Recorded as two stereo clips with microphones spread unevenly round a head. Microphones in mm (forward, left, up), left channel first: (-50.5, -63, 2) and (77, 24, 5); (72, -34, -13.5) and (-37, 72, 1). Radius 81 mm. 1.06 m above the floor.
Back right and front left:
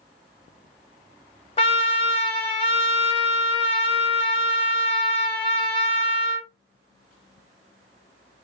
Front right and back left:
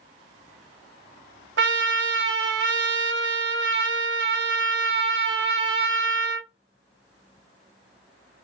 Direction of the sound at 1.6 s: 160° left.